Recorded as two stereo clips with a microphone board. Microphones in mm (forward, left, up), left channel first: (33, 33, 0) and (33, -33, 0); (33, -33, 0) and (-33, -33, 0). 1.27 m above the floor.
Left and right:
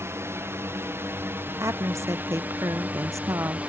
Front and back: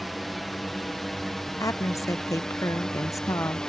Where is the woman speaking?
40° right.